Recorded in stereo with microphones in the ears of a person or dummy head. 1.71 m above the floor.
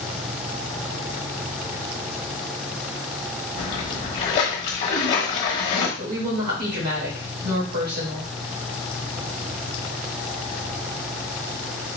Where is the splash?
30° left (ahead or behind), 1.1 m.